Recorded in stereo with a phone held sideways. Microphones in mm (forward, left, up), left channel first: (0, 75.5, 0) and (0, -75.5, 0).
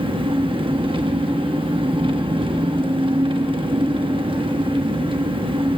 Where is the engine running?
35° right (ahead or behind), 0.8 m.